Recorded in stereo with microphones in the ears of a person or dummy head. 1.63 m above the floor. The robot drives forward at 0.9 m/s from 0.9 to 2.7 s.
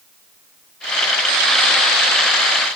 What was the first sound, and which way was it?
Only background noise.